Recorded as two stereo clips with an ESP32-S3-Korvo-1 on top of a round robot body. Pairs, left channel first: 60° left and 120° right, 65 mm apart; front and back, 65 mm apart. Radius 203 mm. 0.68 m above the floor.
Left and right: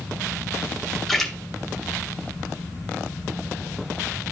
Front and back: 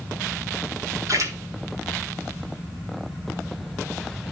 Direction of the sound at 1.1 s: 145° left.